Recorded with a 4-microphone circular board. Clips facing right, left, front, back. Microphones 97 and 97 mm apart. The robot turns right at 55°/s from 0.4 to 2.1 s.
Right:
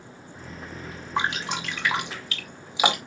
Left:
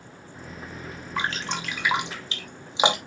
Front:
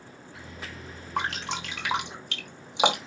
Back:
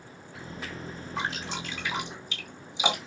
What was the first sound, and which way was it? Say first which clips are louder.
Dripping: right 2 dB, front 3 dB; 25° right.